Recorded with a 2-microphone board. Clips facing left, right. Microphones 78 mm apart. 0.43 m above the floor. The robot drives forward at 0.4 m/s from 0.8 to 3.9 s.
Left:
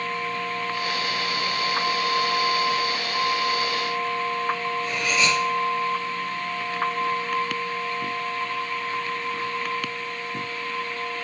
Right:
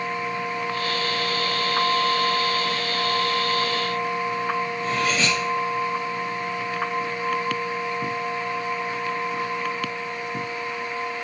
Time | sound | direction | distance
4.8 | cutlery clinking | 35° right (ahead or behind) | 4.5 m